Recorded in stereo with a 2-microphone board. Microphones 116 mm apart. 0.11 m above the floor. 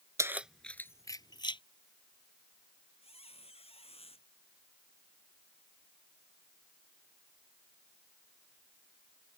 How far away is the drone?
I don't hear a drone.